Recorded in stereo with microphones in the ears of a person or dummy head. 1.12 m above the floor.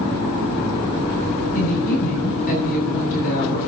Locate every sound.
1.6 s a woman speaking: 50° left (ahead or behind), 8 m